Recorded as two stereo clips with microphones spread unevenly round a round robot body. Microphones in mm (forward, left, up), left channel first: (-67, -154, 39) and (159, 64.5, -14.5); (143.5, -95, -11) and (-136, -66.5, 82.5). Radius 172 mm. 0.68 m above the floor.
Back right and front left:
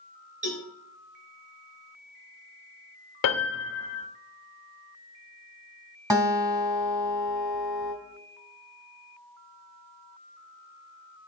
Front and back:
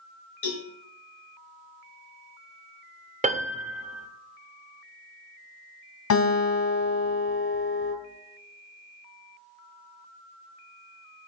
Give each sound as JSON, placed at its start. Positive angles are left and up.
{"t": 0.4, "sound": "a cowbell", "azimuth_deg": -25, "distance_m": 3.5}
{"t": 3.2, "sound": "a piano", "azimuth_deg": -110, "distance_m": 0.8}
{"t": 6.1, "sound": "a guitar", "azimuth_deg": -35, "distance_m": 2.5}